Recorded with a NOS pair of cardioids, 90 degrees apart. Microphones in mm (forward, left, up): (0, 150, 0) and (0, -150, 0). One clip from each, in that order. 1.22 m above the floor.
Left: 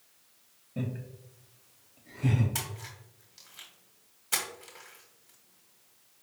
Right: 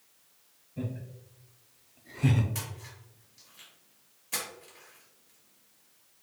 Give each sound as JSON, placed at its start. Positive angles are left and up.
{"t": 0.8, "sound": "laughter", "azimuth_deg": 65, "distance_m": 1.3}
{"t": 2.5, "sound": "a splash", "azimuth_deg": 55, "distance_m": 1.4}